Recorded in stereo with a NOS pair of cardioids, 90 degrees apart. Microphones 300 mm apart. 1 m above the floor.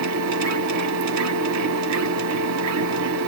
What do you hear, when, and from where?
0.0 s a machine running: 65° right, 1.3 m